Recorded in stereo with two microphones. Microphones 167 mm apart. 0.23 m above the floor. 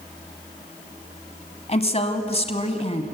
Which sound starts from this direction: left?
A woman speaking, at 1.7 s.